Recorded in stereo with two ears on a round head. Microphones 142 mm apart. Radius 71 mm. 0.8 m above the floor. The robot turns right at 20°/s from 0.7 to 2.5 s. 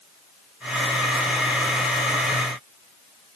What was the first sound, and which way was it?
Only background noise.